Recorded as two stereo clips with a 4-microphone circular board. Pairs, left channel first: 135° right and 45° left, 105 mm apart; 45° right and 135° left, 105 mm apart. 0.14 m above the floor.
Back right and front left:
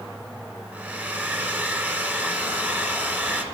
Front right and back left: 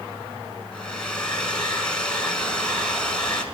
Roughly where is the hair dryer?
Ahead.